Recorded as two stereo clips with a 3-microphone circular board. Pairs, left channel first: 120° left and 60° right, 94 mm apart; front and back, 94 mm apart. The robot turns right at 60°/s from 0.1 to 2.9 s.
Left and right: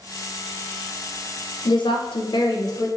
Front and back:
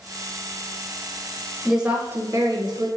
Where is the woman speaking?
90° left, 0.5 m; by 2.9 s 165° left, 0.5 m.